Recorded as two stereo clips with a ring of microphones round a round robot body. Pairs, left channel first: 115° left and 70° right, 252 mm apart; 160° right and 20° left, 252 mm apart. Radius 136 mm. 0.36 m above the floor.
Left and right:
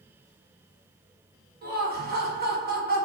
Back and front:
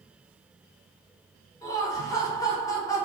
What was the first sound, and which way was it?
Laughter, 90° right.